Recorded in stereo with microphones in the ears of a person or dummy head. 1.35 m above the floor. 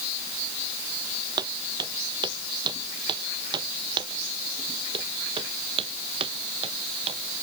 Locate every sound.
1.4 s footsteps: 25° right (ahead or behind); by 7.4 s 35° right (ahead or behind)